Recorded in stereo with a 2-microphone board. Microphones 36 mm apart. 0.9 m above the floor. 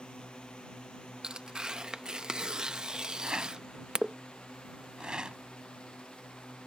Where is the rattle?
25° right (ahead or behind).